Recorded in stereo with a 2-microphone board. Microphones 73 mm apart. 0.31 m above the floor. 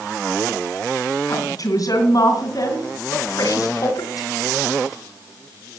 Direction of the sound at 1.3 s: 55° left (ahead or behind).